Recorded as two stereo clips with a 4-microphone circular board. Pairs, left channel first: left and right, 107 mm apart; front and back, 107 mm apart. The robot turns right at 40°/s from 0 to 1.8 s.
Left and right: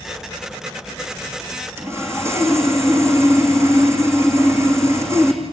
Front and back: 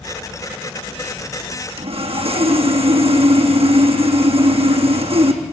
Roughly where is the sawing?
Behind right.